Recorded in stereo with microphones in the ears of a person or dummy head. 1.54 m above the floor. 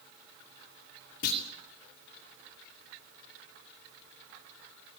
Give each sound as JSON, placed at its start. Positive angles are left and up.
{"t": 1.2, "sound": "a clunk", "side_deg": 40, "distance_m": 2.0}